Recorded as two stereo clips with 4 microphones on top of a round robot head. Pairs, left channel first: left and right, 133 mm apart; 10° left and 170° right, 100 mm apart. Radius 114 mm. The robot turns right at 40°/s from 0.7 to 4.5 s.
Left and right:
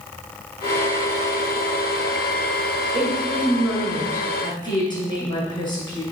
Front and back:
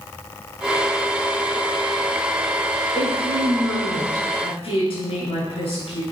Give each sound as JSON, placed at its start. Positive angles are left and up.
{"t": 2.9, "sound": "a woman speaking", "azimuth_deg": -30, "distance_m": 6.0}